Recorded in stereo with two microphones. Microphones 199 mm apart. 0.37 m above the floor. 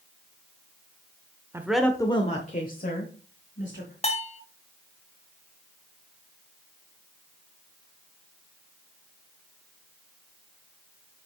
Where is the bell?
30° left (ahead or behind), 0.8 m.